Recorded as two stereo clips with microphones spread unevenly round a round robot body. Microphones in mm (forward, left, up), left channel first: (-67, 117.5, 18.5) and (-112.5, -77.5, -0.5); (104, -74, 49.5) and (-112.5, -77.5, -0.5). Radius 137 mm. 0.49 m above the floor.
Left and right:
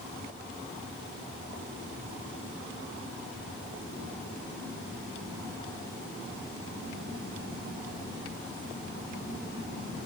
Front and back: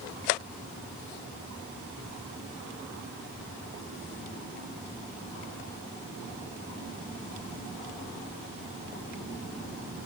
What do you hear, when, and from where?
Only background noise.